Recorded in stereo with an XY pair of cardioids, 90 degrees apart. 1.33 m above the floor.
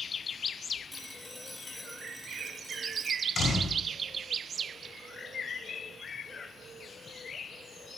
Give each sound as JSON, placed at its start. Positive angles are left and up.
{"t": 0.9, "sound": "a phone ringing", "azimuth_deg": 20, "distance_m": 2.5}
{"t": 3.4, "sound": "a door slam", "azimuth_deg": 55, "distance_m": 5.0}